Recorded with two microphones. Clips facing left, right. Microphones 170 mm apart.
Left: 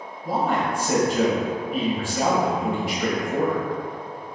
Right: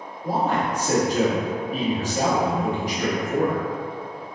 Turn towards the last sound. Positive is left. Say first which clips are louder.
# even
turn(degrees=-40)  # may be behind; listen again after turning